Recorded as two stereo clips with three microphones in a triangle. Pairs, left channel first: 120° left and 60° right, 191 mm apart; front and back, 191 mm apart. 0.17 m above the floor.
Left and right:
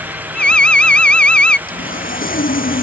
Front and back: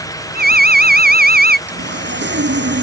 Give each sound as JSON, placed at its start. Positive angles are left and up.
{"t": 0.3, "sound": "an alarm", "azimuth_deg": -155}
{"t": 1.7, "sound": "sawing", "azimuth_deg": 160}